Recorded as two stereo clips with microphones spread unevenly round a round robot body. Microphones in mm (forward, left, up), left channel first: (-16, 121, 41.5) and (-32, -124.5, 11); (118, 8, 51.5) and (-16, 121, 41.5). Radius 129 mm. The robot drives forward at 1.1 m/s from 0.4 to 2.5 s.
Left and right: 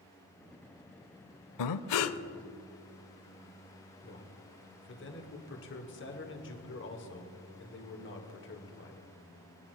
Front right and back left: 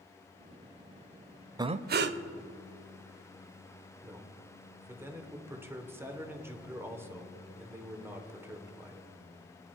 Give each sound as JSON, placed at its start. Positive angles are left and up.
{"t": 1.6, "sound": "breathing", "azimuth_deg": 70, "distance_m": 0.6}
{"t": 4.0, "sound": "a man speaking", "azimuth_deg": 75, "distance_m": 1.7}